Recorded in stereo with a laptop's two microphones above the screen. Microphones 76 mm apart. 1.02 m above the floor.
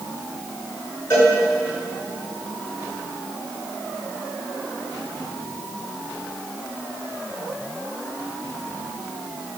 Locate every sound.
1.1 s a cowbell: 30° left (ahead or behind), 6 m